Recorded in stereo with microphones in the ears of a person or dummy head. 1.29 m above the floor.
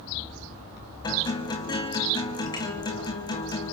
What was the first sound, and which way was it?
A guitar, 20° left (ahead or behind).